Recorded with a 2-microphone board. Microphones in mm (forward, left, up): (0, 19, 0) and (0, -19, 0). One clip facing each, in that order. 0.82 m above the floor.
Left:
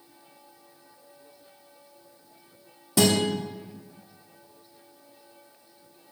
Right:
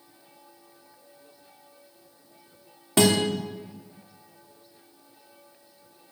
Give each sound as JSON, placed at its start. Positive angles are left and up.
{"t": 3.0, "sound": "a guitar", "side_deg": -45, "distance_m": 2.5}